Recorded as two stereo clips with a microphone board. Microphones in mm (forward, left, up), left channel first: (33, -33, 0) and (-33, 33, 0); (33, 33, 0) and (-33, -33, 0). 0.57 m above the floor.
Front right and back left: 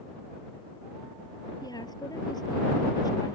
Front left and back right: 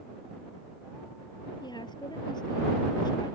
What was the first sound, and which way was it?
A woman speaking, 5° left.